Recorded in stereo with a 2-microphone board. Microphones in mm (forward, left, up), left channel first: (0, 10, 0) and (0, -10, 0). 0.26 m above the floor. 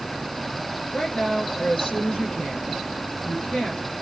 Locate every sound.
0.9 s a woman speaking: 80° left, 9.5 m